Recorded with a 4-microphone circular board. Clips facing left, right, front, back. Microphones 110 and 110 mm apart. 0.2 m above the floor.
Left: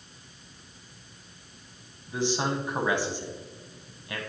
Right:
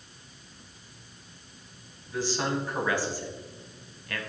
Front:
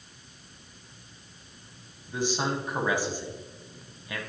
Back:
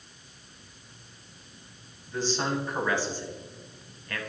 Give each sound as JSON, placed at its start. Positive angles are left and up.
{"t": 2.1, "sound": "a man speaking", "azimuth_deg": 55, "distance_m": 1.1}